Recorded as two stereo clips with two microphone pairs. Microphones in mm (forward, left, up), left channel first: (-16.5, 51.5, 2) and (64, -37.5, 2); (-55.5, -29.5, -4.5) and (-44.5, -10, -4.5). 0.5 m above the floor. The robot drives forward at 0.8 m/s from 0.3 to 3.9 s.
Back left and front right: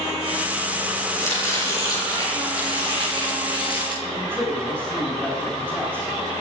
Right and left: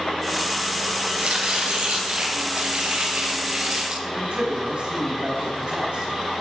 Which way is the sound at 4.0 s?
55° left.